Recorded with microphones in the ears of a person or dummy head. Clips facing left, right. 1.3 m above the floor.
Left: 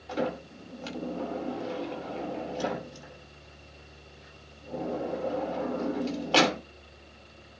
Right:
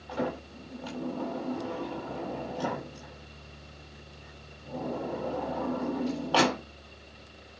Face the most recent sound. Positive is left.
turn(degrees=40)  # may be behind; listen again after turning